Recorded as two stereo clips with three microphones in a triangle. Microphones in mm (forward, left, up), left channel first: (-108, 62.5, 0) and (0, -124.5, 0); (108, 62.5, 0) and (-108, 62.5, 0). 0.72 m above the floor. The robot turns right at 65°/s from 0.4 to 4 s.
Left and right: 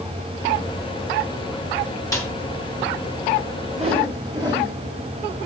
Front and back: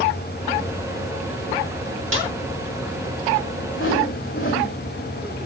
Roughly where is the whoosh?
Ahead.